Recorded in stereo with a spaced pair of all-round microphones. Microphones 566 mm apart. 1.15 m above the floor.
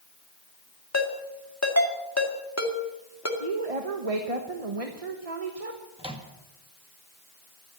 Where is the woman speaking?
80° right, 1.2 m.